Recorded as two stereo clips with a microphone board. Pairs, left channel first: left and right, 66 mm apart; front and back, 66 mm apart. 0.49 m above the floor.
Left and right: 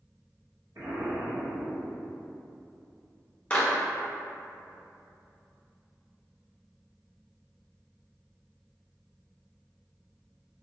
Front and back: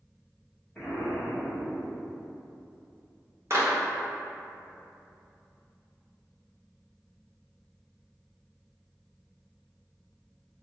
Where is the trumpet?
I don't hear a trumpet.